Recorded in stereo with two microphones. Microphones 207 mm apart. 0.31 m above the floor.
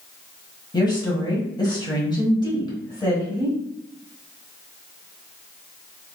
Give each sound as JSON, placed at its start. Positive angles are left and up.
{"t": 0.7, "sound": "a woman speaking", "side_deg": 20, "distance_m": 1.4}